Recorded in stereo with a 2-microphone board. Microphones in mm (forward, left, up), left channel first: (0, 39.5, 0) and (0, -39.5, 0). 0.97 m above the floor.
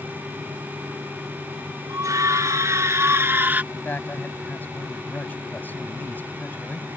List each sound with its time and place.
1.9 s a scream: 50° right (ahead or behind); by 3.6 s 20° right (ahead or behind)
3.7 s a man speaking: 25° left (ahead or behind)